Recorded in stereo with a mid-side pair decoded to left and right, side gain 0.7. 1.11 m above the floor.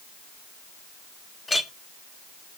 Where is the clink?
15° left, 1.0 m.